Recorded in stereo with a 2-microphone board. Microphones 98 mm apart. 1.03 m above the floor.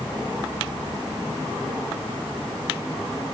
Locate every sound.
Only background noise.